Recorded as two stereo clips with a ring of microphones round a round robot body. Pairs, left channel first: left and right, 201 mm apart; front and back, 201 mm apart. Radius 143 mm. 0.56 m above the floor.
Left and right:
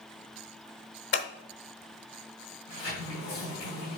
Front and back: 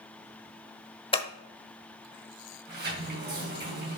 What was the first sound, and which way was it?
Scissors, 65° left.